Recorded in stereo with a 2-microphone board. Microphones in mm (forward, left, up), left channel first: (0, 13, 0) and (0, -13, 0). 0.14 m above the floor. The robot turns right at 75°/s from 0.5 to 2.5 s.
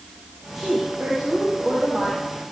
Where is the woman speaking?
170° right, 7.5 m; by 2.2 s 45° right, 7.5 m.